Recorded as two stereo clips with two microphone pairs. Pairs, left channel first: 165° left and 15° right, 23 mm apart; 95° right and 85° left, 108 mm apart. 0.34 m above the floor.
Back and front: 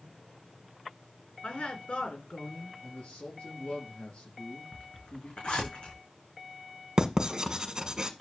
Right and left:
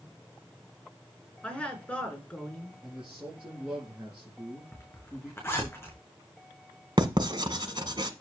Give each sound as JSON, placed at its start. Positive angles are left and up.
{"t": 1.4, "sound": "a woman speaking", "azimuth_deg": -175, "distance_m": 4.0}
{"t": 2.8, "sound": "a man speaking", "azimuth_deg": 160, "distance_m": 6.0}
{"t": 4.7, "sound": "a zipper", "azimuth_deg": -165, "distance_m": 5.5}
{"t": 7.0, "sound": "writing", "azimuth_deg": 40, "distance_m": 1.6}